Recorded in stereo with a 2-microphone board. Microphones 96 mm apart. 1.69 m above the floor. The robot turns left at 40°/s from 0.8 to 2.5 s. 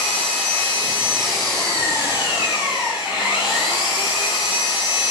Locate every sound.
0.0 s an engine running: 160° right, 5.5 m; by 5.1 s 130° left, 5.5 m